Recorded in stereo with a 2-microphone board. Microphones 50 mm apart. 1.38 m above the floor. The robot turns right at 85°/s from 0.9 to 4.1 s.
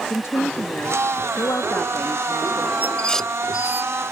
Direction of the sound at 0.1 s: 55° left.